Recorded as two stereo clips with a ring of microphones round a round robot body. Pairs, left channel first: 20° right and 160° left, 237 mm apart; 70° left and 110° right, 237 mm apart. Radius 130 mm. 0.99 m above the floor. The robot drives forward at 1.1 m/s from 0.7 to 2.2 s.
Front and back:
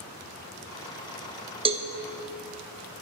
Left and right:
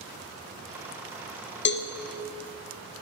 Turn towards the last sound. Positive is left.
turn(degrees=125)